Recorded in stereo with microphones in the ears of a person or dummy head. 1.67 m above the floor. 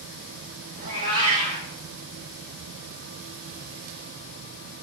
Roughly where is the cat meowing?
Right.